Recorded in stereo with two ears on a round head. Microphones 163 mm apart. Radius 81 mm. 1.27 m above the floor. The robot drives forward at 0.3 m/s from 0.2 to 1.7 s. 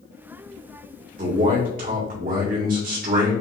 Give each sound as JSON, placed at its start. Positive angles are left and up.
{"t": 1.2, "sound": "a man speaking", "side_deg": -45, "distance_m": 1.9}